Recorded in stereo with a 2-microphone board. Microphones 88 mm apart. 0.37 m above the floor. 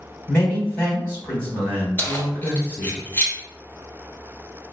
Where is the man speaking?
25° left (ahead or behind), 1.3 m.